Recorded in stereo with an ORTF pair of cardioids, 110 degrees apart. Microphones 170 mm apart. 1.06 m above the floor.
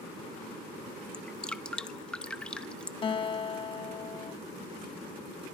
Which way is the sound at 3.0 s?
30° left.